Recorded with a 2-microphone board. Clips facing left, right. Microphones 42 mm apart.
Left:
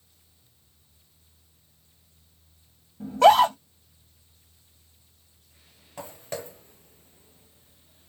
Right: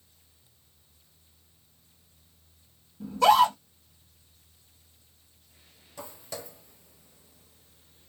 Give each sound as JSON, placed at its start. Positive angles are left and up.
{"t": 3.0, "sound": "a scream", "side_deg": 45, "distance_m": 1.8}
{"t": 6.0, "sound": "footsteps", "side_deg": 45, "distance_m": 0.9}